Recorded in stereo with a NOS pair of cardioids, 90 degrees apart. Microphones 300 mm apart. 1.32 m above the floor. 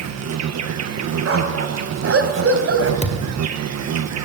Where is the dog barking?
50° right, 3.5 m.